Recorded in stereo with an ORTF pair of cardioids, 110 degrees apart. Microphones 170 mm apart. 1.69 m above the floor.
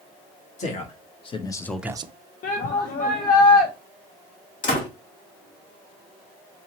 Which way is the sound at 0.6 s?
45° left.